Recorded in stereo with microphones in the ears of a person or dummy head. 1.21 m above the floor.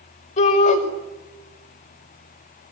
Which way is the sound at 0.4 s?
35° left (ahead or behind).